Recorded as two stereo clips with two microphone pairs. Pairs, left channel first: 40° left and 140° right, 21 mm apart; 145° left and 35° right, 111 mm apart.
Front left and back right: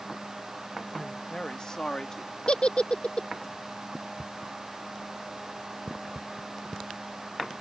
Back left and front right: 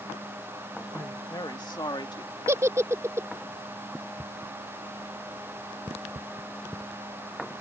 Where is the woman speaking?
90° left; by 2.3 s 100° left.